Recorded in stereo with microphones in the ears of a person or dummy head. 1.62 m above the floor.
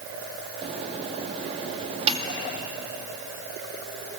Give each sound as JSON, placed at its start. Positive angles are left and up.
{"t": 0.6, "sound": "a microwave", "side_deg": -35, "distance_m": 1.9}